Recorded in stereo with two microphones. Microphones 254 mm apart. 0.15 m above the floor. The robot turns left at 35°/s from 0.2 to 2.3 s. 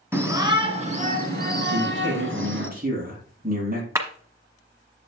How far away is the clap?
About 1.1 m.